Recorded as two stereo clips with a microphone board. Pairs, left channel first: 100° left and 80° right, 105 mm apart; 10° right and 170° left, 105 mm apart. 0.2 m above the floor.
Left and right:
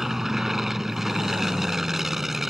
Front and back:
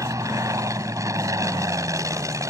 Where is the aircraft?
165° right.